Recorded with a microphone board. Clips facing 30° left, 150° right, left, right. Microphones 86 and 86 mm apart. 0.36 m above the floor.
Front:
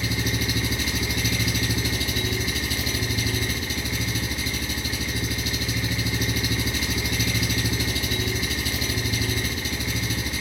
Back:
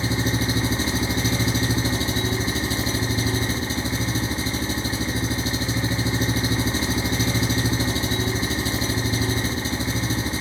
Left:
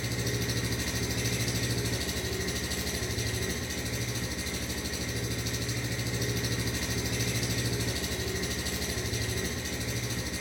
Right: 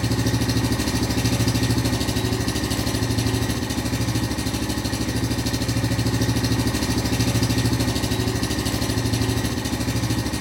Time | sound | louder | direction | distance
0.0 | an engine running | back 4 dB, right 11 dB | 95° right | 0.7 m